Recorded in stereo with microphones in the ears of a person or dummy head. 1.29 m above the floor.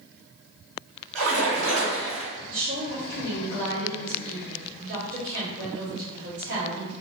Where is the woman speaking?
55° right (ahead or behind), 1.2 m.